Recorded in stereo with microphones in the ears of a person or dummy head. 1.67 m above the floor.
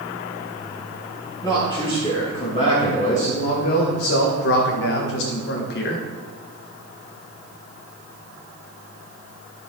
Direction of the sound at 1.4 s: 20° left (ahead or behind).